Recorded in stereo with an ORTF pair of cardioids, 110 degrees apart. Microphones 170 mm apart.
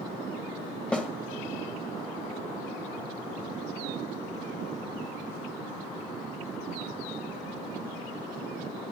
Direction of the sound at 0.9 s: 5° left.